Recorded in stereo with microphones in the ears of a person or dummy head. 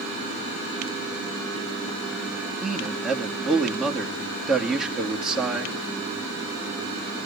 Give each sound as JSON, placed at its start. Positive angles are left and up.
{"t": 2.6, "sound": "a man speaking", "side_deg": -5, "distance_m": 2.5}